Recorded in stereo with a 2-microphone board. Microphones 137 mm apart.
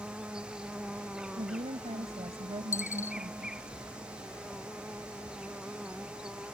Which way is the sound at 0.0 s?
5° right (ahead or behind).